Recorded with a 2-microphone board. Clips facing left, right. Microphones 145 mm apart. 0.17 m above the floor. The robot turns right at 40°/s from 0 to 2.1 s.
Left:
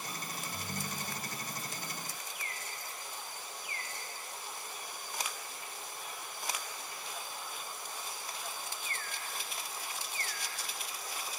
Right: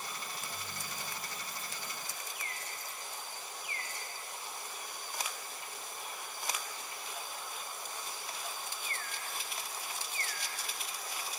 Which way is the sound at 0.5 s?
120° left.